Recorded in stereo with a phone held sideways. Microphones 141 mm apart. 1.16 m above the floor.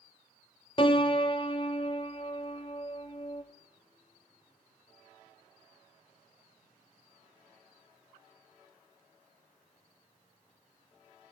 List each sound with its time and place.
0.8 s a piano: 35° left (ahead or behind), 1.2 m